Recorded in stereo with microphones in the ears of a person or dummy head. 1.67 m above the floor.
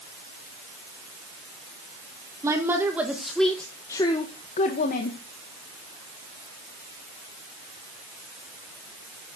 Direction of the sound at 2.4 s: 15° right (ahead or behind).